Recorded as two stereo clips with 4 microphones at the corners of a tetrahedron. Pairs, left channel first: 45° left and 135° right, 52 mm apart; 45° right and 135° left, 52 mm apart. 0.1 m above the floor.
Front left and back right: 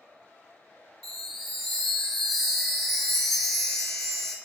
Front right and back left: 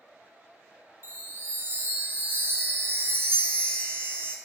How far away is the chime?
About 0.7 m.